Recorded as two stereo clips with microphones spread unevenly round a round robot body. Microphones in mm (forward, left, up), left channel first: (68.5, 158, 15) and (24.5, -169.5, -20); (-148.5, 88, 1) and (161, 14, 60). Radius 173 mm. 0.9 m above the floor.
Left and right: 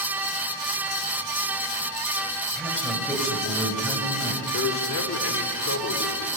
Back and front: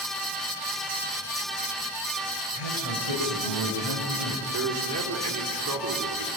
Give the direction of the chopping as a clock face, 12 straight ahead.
I don't hear chopping.